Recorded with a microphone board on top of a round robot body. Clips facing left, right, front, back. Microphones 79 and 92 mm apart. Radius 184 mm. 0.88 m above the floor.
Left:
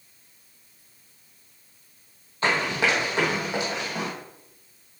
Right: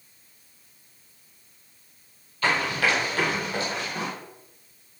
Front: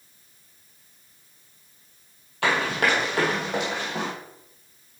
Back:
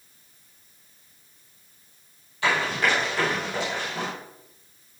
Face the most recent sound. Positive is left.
turn(degrees=15)